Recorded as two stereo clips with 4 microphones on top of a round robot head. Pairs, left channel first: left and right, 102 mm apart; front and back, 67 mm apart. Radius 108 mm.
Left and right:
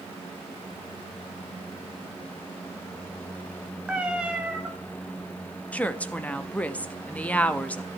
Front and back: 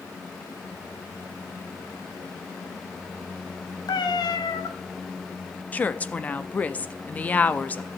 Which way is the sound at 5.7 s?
30° left.